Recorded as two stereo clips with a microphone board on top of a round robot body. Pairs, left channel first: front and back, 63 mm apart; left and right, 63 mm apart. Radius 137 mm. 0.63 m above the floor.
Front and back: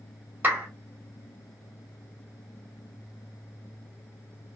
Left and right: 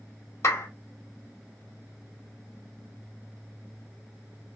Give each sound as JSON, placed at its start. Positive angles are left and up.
{"t": 0.4, "sound": "a clap", "azimuth_deg": 125, "distance_m": 2.0}